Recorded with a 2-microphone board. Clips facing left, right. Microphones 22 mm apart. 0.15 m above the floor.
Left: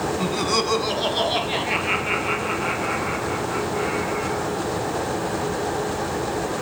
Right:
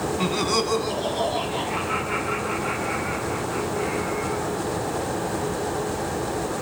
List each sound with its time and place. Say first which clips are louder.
0.2 s laughter: even; 20° right (ahead or behind), 1.1 m; by 4.5 s 80° left, 6.5 m